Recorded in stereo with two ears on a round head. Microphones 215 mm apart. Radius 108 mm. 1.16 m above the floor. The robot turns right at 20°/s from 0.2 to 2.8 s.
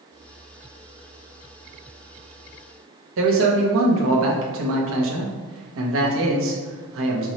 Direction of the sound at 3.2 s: 60° right (ahead or behind).